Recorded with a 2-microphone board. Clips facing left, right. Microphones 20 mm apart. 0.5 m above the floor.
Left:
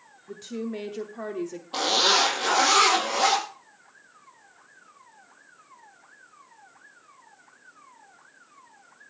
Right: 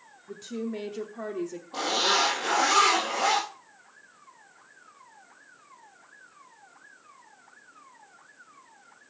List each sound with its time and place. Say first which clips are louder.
0.3 s a woman speaking: left 1 dB; 10° left (ahead or behind), 0.9 m
1.7 s a zipper: left 4 dB; 85° left, 5.5 m